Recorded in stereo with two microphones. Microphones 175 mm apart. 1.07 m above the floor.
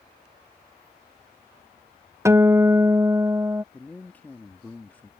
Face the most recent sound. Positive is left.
turn(degrees=10)  # may be behind; listen again after turning